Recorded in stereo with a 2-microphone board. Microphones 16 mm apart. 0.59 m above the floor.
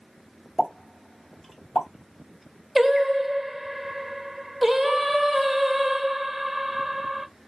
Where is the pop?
35° left (ahead or behind), 1.4 m.